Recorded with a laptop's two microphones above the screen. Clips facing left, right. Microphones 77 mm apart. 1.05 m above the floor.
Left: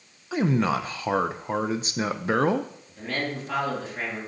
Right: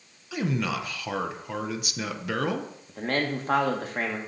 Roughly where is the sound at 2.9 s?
Right.